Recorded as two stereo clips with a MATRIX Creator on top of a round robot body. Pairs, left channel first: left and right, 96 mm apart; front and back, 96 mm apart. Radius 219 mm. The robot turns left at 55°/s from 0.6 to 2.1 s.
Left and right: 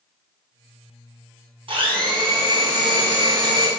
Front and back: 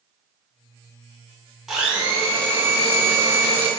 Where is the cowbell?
I don't hear a cowbell.